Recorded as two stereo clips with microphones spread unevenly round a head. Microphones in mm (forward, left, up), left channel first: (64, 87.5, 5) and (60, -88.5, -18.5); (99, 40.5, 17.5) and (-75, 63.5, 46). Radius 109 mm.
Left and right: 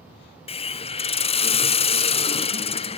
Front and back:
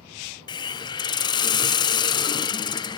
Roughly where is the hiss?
Ahead left.